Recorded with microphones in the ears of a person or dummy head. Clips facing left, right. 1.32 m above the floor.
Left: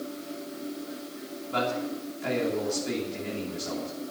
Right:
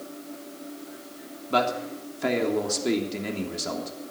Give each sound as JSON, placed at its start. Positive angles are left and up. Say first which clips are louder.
{"t": 1.5, "sound": "a man speaking", "louder": "right 3 dB", "side_deg": -90, "distance_m": 3.0}